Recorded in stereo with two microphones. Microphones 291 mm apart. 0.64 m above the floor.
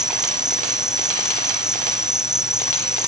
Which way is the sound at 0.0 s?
Centre (ahead or behind).